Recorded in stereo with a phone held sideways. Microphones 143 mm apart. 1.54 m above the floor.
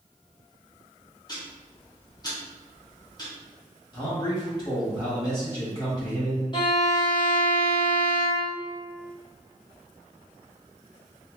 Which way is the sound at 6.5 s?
35° left (ahead or behind).